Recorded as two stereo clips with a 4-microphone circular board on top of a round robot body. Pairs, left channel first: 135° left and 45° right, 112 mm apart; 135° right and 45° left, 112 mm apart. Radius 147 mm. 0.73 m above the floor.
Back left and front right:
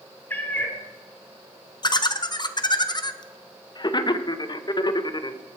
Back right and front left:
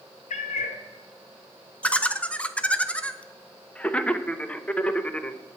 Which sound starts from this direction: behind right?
A cat meowing, at 0.3 s.